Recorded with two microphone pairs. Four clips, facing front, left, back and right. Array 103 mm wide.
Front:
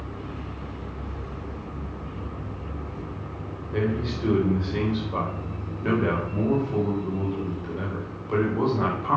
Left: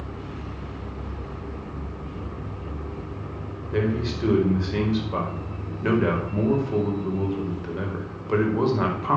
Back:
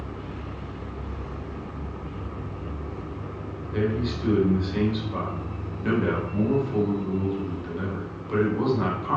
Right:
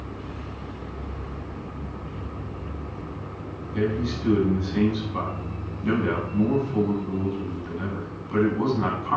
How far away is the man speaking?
About 5 m.